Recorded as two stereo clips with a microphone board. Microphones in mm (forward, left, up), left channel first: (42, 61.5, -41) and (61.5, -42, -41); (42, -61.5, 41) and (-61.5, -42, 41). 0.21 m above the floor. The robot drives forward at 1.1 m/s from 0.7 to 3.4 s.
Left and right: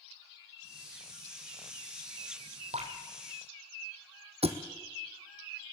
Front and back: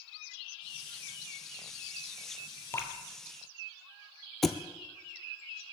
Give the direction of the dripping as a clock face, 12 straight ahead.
3 o'clock.